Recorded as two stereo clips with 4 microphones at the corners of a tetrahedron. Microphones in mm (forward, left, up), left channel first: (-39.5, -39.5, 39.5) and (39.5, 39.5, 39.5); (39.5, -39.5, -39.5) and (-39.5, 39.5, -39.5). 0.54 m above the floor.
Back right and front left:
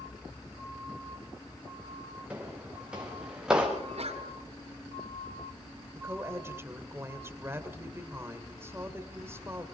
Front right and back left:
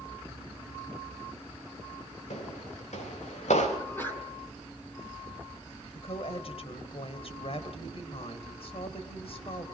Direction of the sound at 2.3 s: 35° right.